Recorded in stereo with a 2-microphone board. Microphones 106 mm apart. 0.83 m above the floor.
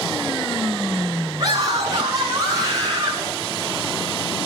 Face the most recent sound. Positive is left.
turn(degrees=-30)  # may be behind; listen again after turning